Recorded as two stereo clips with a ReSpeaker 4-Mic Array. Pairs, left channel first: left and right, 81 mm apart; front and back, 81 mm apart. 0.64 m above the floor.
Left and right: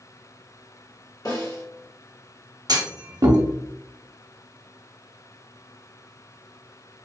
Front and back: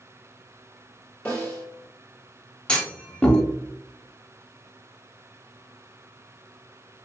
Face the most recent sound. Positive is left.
turn(degrees=-75)